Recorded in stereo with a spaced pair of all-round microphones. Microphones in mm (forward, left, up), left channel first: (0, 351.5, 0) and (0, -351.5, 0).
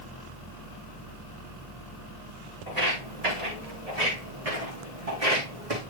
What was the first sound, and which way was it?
Footsteps, 65° right (ahead or behind).